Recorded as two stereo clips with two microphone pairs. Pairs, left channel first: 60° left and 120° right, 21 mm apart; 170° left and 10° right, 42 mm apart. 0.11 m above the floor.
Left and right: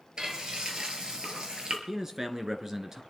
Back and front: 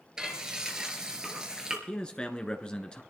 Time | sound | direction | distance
0.2 | frying | 80° right | 2.5 m
1.9 | a man speaking | 160° right | 1.3 m